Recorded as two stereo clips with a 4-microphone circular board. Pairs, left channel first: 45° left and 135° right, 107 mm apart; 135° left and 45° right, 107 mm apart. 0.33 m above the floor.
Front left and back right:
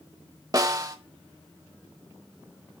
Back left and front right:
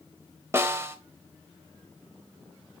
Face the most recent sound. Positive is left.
turn(degrees=-100)